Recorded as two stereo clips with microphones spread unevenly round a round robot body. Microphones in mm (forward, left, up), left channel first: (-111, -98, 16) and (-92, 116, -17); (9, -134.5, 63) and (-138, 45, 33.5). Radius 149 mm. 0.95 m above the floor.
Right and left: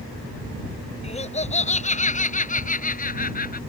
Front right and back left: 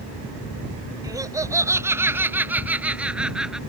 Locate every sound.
1.0 s laughter: 155° right; by 3.6 s 145° right